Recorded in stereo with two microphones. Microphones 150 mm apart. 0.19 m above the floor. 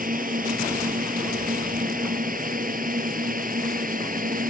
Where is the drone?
70° right (ahead or behind).